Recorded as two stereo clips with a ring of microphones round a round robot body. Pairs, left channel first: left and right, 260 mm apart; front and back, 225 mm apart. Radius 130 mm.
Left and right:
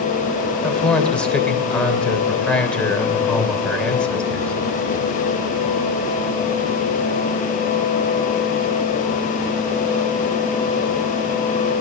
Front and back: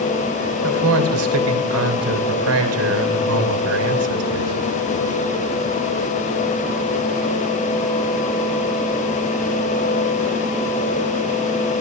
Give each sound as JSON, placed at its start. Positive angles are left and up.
{"t": 0.6, "sound": "a man speaking", "azimuth_deg": 175, "distance_m": 3.0}